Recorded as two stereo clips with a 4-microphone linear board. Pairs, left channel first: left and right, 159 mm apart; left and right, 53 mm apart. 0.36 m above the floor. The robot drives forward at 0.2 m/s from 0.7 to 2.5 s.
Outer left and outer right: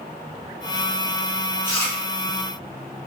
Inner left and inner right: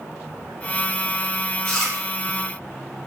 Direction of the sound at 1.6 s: 15° left (ahead or behind).